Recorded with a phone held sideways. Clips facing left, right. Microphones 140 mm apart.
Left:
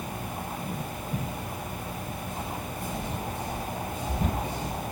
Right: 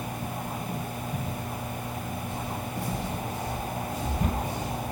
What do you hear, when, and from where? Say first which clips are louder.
2.3 s footsteps: right 1 dB; 65° right (ahead or behind), 2 m; by 4.7 s 75° right (ahead or behind), 4.5 m